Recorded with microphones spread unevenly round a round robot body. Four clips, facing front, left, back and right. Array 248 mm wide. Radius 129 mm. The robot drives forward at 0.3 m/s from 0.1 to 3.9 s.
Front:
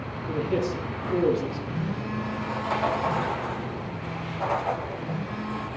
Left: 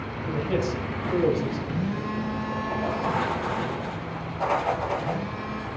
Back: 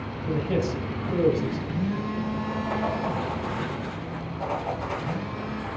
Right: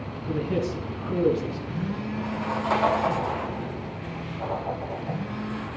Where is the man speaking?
130° left, 3.5 m; by 1.6 s 135° left, 4 m.